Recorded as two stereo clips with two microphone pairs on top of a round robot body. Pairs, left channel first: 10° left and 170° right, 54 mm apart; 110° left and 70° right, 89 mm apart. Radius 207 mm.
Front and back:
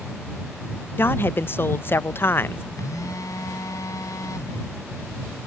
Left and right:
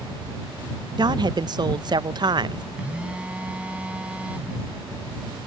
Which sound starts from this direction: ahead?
A phone buzzing, at 2.8 s.